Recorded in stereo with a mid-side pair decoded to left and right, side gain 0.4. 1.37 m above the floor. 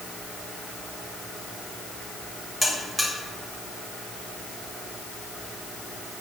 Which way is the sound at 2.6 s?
10° left.